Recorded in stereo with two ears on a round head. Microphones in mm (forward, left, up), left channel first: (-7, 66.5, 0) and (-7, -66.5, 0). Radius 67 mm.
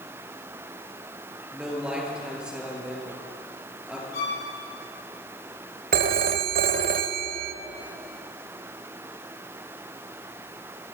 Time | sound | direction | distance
1.5 | a man speaking | 5° right (ahead or behind) | 6.5 m
4.1 | a violin | 80° left | 10 m
5.9 | a phone ringing | 65° right (ahead or behind) | 1.1 m